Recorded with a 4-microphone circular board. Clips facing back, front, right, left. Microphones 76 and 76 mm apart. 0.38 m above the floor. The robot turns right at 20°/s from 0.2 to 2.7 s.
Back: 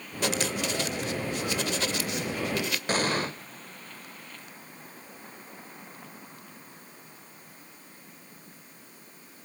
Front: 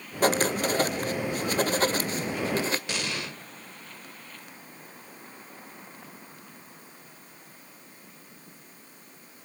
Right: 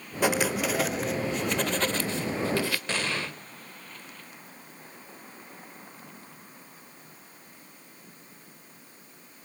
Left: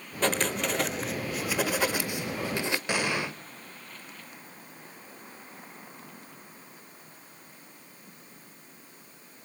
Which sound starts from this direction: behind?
An explosion, at 2.9 s.